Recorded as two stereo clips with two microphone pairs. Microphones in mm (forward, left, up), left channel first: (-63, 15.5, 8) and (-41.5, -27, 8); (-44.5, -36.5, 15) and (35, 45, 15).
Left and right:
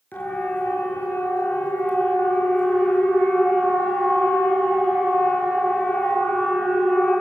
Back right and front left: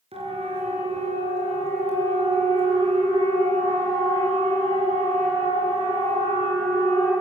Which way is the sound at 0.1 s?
70° left.